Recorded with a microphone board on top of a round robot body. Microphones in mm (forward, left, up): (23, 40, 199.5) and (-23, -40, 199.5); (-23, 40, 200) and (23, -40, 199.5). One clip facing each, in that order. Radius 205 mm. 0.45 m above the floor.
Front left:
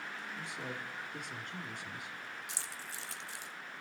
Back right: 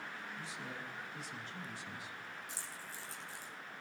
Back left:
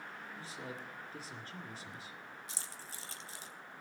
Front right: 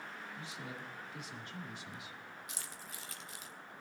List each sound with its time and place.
0.3 s a man speaking: 75° left, 2.5 m
2.5 s keys jangling: 65° left, 1.5 m